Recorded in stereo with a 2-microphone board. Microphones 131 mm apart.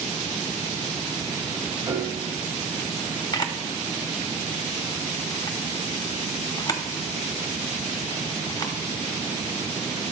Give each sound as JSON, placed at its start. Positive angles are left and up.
{"t": 1.9, "sound": "a piano", "side_deg": -25, "distance_m": 2.5}
{"t": 3.3, "sound": "a camera shutter", "side_deg": 30, "distance_m": 0.8}